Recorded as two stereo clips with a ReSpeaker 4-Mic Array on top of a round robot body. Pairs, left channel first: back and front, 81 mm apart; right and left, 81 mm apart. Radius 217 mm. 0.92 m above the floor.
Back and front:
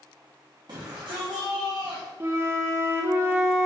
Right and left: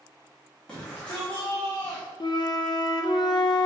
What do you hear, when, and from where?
0.7 s a shout: 15° right, 1.8 m
2.2 s a flute: 60° right, 0.8 m